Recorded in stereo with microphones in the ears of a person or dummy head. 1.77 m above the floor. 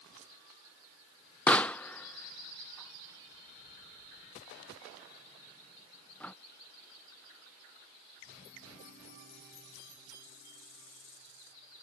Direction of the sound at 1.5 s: 10° left (ahead or behind).